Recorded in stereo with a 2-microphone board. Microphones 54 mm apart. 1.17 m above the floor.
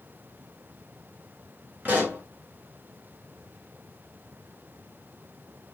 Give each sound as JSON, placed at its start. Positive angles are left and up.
{"t": 1.9, "sound": "a pop", "side_deg": -25, "distance_m": 2.5}